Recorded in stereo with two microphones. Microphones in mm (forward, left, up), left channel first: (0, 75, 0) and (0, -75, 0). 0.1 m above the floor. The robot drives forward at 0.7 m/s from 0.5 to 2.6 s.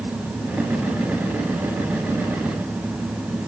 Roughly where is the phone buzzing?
No phone buzzing in this recording.